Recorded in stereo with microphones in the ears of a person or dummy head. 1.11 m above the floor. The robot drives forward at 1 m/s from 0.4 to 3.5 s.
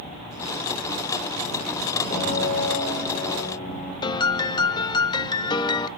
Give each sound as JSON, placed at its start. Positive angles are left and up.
{"t": 2.1, "sound": "a piano", "side_deg": 50, "distance_m": 5.5}
{"t": 4.0, "sound": "a piano", "side_deg": 25, "distance_m": 0.6}